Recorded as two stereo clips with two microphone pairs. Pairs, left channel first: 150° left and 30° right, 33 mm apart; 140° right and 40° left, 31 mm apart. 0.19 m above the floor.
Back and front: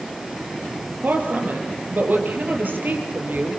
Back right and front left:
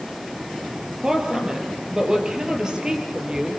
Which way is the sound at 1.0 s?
30° right.